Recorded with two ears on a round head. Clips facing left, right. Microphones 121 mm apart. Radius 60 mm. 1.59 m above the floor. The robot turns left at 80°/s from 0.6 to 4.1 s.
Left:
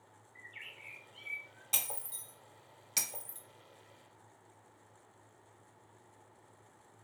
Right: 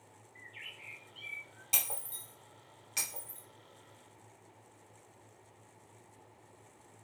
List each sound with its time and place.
0.3 s a bird: 65° left, 2.0 m; by 1.6 s 20° right, 2.0 m
1.7 s breaking glass: 10° right (ahead or behind), 0.9 m; by 3.4 s 35° left (ahead or behind), 0.9 m